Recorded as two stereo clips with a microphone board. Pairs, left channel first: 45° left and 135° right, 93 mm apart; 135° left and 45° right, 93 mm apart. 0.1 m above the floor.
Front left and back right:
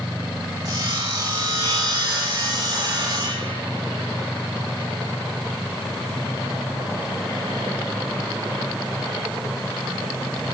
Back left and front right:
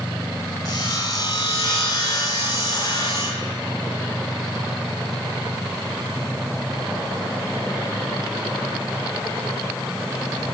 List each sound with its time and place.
0.7 s sawing: 175° right, 8 m